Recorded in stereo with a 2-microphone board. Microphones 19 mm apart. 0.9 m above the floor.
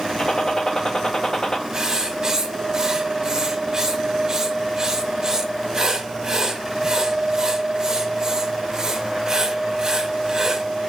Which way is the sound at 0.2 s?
35° left (ahead or behind).